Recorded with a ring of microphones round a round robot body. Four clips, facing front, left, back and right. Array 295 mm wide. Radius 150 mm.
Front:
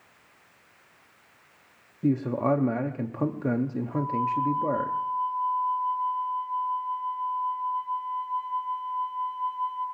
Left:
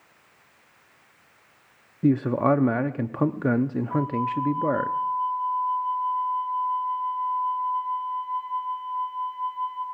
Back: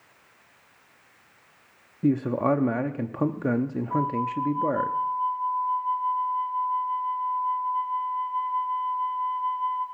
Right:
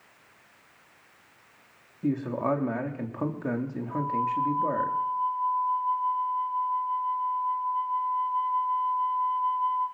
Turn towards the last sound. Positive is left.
turn(degrees=150)